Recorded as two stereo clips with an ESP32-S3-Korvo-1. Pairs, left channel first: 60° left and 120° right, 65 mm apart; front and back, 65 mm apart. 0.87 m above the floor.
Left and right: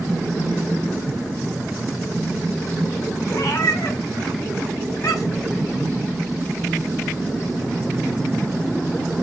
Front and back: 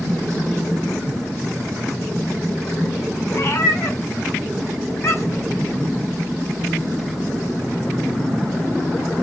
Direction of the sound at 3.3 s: 35° left.